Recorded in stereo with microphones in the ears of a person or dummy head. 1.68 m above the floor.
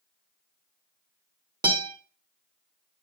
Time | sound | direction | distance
1.6 | a guitar | 20° right (ahead or behind) | 1.1 m